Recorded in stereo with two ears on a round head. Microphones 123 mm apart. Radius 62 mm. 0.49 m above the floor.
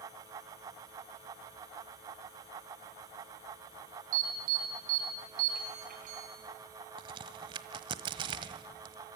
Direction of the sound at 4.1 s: 70° right (ahead or behind).